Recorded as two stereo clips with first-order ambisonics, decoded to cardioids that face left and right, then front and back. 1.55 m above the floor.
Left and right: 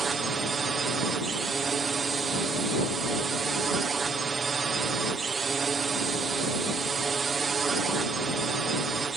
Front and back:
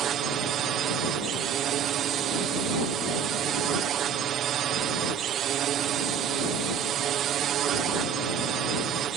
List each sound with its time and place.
0.0 s a drone: 150° right